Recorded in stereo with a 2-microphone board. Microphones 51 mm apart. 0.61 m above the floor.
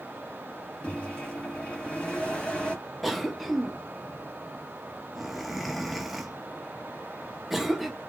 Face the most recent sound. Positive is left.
turn(degrees=0)  # may be behind; listen again after turning